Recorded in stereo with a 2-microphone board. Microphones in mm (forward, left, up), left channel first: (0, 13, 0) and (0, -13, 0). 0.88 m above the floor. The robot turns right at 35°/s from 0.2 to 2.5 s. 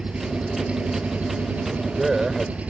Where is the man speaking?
25° right (ahead or behind); by 2.6 s 5° left (ahead or behind).